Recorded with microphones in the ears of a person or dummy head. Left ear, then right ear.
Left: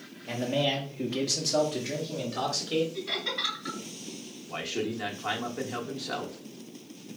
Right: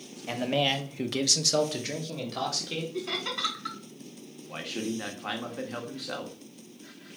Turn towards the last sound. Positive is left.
turn(degrees=-5)  # may be behind; listen again after turning